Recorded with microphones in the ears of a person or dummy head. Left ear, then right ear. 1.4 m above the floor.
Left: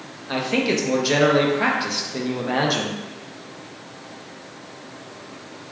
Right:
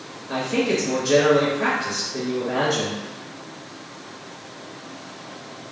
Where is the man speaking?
35° left (ahead or behind), 0.5 m.